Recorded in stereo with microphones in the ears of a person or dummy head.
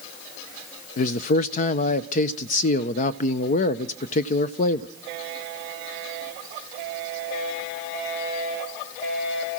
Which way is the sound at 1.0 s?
50° left (ahead or behind).